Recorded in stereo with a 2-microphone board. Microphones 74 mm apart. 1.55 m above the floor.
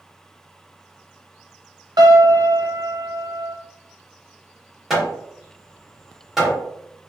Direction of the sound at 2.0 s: 65° right (ahead or behind).